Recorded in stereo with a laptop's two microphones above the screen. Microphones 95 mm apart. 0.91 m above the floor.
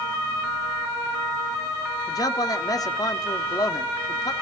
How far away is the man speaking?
About 1.8 m.